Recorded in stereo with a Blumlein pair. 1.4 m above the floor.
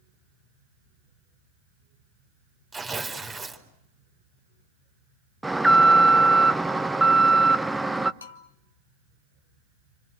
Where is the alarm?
5° right, 0.7 m.